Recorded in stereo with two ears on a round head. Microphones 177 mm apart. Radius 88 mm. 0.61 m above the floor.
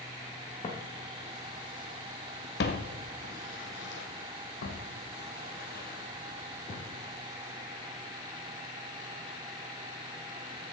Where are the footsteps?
30° left (ahead or behind), 1.8 m; by 6.8 s 40° left (ahead or behind), 2.5 m.